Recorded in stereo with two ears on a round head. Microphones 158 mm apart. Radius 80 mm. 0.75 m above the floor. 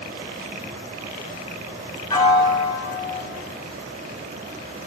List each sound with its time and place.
2.1 s a piano: 20° left (ahead or behind), 0.7 m